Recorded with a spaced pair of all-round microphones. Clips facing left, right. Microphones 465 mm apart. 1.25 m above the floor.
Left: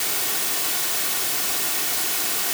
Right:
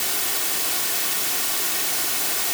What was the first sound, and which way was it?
Only background noise.